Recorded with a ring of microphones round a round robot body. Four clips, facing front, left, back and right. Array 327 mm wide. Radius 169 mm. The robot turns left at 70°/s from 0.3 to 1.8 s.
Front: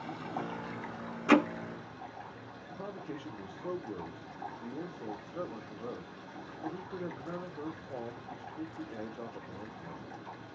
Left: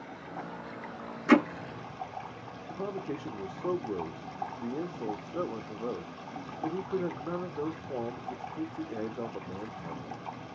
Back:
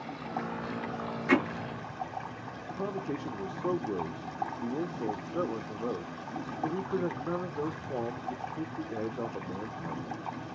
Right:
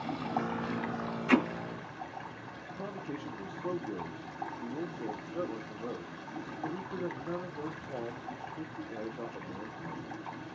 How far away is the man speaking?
About 0.8 m.